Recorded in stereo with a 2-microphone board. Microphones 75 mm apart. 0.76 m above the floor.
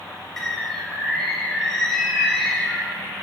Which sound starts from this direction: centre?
A bird, at 0.4 s.